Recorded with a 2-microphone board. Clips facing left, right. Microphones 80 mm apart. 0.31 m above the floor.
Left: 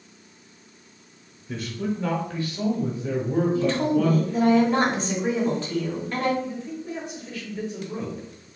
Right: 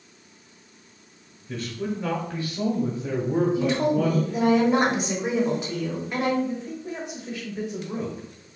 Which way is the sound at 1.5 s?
5° left (ahead or behind).